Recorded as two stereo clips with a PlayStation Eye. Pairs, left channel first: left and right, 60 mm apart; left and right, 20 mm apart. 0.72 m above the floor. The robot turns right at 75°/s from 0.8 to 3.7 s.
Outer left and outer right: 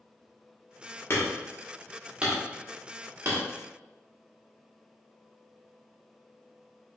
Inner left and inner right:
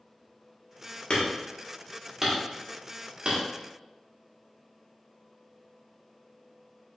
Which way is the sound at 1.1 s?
50° left (ahead or behind).